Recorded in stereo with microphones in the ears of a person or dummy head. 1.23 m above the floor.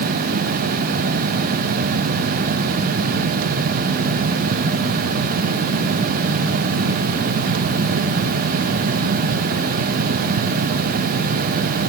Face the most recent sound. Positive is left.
No sound to turn to.